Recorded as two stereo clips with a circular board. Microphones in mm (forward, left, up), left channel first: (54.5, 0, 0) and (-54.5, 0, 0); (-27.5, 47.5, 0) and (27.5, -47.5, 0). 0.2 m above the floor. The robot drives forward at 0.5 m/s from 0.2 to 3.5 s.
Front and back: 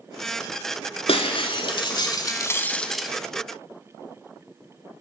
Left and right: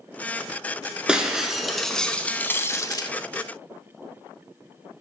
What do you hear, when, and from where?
1.1 s breaking glass: 20° left, 1.1 m; by 3.1 s 95° left, 0.5 m